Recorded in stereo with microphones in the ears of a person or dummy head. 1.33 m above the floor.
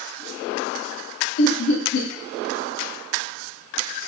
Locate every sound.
1.4 s laughter: 80° left, 0.7 m